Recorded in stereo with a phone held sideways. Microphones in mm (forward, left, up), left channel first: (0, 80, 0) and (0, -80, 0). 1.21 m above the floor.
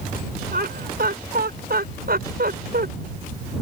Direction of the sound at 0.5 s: 75° right (ahead or behind).